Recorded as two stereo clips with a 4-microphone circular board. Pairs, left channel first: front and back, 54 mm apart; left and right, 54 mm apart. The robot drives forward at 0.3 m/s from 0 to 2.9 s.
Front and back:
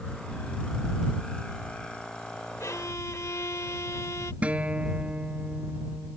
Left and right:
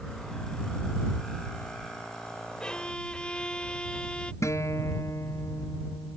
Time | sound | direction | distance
2.6 | a violin | 20° left | ?
4.4 | a guitar | 115° left | ?